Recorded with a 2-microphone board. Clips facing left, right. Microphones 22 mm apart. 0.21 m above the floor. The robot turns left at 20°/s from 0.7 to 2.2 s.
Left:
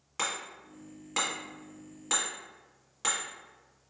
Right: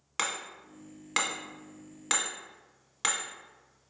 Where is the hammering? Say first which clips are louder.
Right 1 dB; 45° right (ahead or behind), 1.0 m; by 3.9 s 50° right (ahead or behind), 1.0 m.